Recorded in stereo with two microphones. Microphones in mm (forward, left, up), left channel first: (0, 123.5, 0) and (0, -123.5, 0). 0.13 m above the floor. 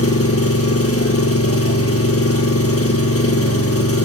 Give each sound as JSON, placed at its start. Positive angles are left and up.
{"t": 0.0, "sound": "an engine running", "side_deg": 65, "distance_m": 1.3}